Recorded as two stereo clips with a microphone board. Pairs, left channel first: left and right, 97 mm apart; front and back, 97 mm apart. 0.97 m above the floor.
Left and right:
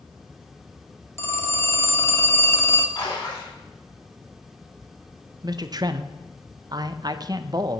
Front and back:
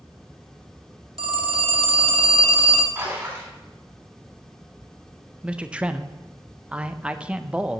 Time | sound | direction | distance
1.2 | a phone ringing | 150° left | 0.9 m
3.0 | a splash | 120° left | 2.5 m
5.4 | a man speaking | 105° right | 0.5 m